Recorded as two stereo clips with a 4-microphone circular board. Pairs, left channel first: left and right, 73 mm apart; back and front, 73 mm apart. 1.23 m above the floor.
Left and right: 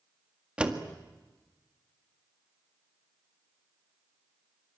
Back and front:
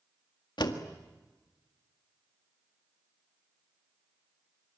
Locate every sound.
0.6 s a door slam: 165° right, 1.8 m